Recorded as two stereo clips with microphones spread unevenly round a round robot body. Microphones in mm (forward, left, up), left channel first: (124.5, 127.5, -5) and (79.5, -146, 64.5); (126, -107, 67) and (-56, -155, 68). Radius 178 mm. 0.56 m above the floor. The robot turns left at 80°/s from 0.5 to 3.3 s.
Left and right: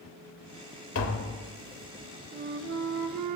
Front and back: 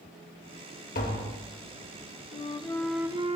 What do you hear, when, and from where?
0.9 s tapping: 60° left, 2.5 m; by 1.4 s 25° left, 2.5 m
2.3 s a flute: 30° right, 1.1 m; by 3.4 s 110° right, 1.1 m